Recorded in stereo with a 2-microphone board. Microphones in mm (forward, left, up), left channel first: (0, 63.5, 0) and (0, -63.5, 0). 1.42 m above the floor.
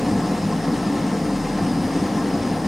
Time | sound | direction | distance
0.0 | an engine running | centre (ahead or behind) | 0.9 m